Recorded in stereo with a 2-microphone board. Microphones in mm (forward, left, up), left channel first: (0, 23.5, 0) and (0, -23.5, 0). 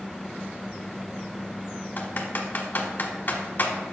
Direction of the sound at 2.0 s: 40° left (ahead or behind).